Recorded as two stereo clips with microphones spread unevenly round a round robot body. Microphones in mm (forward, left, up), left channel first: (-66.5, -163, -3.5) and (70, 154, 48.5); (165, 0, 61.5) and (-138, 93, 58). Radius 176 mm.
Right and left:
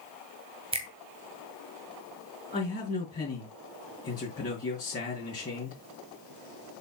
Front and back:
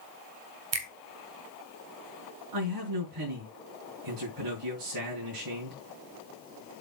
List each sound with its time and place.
0.7 s a finger snap: 145° left, 2.0 m
2.5 s a man speaking: straight behind, 4.5 m